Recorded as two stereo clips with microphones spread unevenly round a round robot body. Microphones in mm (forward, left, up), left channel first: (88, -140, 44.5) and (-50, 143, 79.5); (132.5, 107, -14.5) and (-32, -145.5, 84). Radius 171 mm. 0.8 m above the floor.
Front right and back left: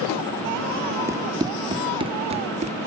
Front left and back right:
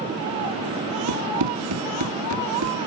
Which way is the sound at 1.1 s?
165° right.